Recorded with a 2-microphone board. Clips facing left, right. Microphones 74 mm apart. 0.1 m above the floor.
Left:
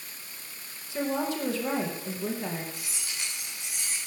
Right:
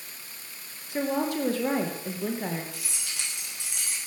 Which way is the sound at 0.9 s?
50° right (ahead or behind).